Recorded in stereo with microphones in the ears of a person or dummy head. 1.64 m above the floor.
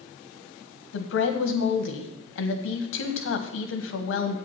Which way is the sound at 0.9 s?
75° left (ahead or behind).